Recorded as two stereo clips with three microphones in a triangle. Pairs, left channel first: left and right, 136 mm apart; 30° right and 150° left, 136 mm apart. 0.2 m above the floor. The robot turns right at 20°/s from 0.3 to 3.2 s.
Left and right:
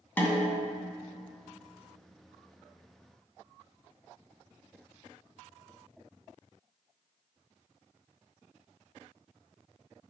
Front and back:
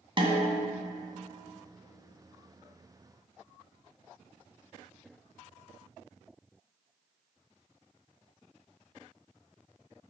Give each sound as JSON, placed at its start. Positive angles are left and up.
{"t": 0.2, "sound": "a snare drum", "azimuth_deg": 155, "distance_m": 1.8}